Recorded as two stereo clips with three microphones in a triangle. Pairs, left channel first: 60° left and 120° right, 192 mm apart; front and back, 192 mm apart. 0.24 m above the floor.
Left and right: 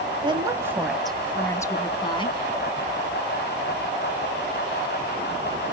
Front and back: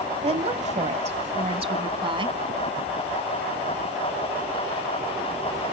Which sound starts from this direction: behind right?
A woman speaking, at 0.2 s.